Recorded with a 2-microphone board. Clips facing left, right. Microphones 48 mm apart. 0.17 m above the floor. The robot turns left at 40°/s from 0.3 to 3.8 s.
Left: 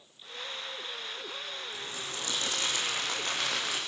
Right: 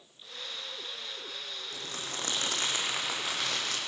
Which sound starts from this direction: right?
Crumpling, at 1.7 s.